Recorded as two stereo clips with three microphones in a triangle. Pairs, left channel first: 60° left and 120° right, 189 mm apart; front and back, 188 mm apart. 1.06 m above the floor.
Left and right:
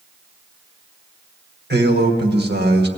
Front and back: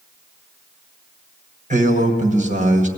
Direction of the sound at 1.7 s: 135° right.